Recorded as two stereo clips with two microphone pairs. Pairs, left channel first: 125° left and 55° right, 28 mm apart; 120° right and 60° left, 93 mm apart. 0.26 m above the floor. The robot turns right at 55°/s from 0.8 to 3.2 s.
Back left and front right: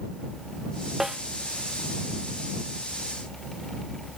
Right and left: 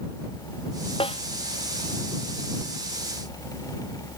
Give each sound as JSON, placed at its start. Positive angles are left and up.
{"t": 1.0, "sound": "a snare drum", "azimuth_deg": -130}